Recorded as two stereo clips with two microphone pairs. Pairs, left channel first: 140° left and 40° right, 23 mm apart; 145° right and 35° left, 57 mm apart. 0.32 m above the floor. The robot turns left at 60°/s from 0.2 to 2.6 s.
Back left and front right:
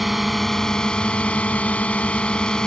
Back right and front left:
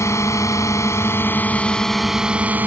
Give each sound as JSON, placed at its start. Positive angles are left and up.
{"t": 0.0, "sound": "a drone", "azimuth_deg": -125}